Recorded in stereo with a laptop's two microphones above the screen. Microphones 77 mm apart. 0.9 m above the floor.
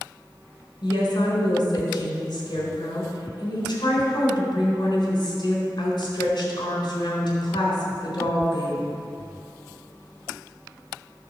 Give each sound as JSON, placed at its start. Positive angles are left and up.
{"t": 0.8, "sound": "a woman speaking", "side_deg": 60, "distance_m": 4.0}